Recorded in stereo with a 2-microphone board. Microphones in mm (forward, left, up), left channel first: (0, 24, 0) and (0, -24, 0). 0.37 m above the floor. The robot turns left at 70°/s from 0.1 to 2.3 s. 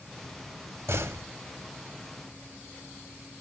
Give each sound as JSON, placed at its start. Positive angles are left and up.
{"t": 0.9, "sound": "a door slam", "side_deg": -65, "distance_m": 1.4}